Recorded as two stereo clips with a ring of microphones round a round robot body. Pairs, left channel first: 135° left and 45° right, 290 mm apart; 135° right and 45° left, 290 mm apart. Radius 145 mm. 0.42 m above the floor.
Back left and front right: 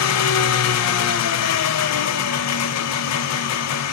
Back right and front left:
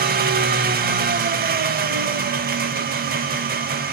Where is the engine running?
105° left, 0.8 m.